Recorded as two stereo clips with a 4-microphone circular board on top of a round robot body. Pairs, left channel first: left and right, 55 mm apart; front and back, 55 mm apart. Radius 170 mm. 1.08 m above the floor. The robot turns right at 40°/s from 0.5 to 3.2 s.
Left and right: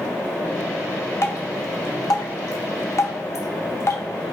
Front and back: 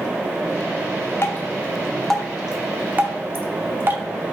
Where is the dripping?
50° left, 0.8 m; by 4.0 s 130° left, 0.8 m.